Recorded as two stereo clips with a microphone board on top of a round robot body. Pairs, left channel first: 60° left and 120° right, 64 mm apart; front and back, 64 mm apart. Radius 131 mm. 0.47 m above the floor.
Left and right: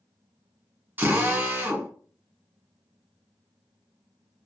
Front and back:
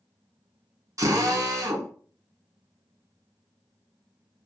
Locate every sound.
1.0 s a drill: 175° right, 1.1 m